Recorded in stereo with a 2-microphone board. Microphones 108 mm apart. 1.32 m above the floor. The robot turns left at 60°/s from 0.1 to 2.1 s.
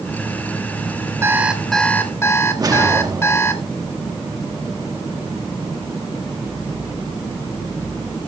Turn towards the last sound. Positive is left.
turn(degrees=-35)  # may be behind; listen again after turning